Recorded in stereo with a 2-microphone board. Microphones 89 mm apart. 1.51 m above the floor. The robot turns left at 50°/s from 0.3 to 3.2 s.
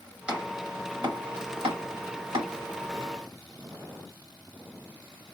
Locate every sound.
0.3 s chopping: 15° right (ahead or behind), 1.4 m; by 2.5 s 55° right (ahead or behind), 1.4 m